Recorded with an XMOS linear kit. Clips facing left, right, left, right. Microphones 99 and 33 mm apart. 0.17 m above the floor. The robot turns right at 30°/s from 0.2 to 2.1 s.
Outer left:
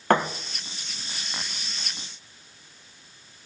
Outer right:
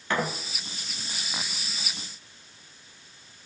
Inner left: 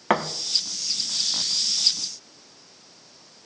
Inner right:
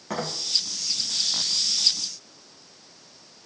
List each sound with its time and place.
0.1 s a thud: 60° left (ahead or behind), 4.5 m; by 0.3 s 55° left (ahead or behind), 4.5 m